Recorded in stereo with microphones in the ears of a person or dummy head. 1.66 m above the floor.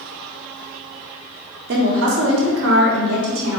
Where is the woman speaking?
55° right (ahead or behind), 0.7 m; by 3.6 s 75° right (ahead or behind), 1.6 m.